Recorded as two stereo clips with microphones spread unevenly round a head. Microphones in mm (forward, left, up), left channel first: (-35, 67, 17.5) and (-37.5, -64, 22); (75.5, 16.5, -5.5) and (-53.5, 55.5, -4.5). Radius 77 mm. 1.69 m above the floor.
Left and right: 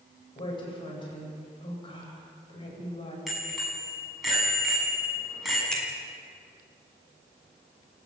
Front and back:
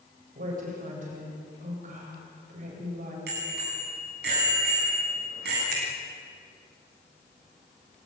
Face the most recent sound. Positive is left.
turn(degrees=175)